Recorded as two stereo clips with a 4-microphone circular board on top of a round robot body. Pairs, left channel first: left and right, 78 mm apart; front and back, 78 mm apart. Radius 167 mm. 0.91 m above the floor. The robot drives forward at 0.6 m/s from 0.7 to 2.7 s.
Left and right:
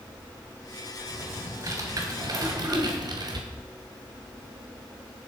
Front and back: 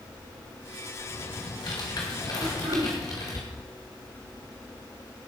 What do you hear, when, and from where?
1.1 s typing on a keyboard: 35° right, 2.5 m; by 3.4 s 55° right, 1.8 m
2.4 s throat clearing: 170° right, 4.5 m